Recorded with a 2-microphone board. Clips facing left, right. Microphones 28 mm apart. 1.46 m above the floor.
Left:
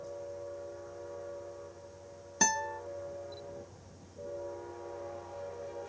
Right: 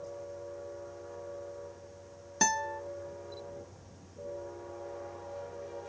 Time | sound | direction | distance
2.4 | a guitar | 5° right (ahead or behind) | 0.7 m